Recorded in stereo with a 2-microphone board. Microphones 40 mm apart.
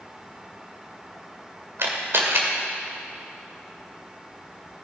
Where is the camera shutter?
75° right (ahead or behind), 2 m.